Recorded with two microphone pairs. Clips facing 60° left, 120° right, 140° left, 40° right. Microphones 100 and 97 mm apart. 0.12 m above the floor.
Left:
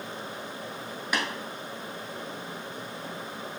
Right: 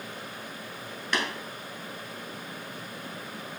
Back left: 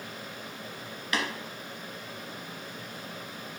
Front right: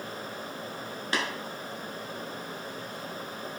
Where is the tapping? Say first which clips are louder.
Even, even; 15° right, 0.9 m.